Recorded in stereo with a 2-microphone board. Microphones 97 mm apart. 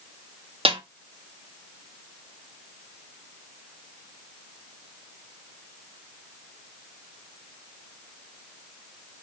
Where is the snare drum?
65° right (ahead or behind), 0.6 m.